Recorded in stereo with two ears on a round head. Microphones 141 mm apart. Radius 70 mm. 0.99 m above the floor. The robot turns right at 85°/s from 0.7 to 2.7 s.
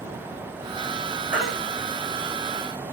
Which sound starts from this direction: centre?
A baby crying, at 1.3 s.